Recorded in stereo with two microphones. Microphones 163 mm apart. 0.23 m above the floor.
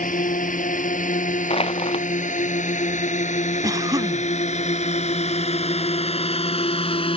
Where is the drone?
55° left (ahead or behind); by 7.2 s 35° left (ahead or behind).